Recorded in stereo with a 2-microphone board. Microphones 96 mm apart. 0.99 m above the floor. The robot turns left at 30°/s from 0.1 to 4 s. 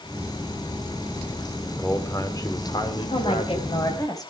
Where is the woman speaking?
70° left (ahead or behind), 5 m; by 4.3 s 40° left (ahead or behind), 5 m.